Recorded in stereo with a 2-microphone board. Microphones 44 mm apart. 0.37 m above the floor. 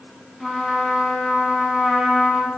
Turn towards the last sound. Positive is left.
turn(degrees=5)  # may be behind; listen again after turning